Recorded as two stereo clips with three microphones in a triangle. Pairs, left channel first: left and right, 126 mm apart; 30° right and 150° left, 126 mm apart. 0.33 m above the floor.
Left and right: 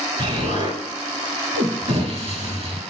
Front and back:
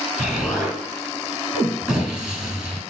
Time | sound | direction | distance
0.2 | an explosion | 125° right | 1.0 m